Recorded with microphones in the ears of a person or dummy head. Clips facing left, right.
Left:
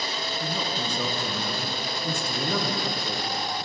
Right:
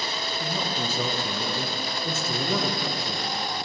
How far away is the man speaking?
About 0.7 m.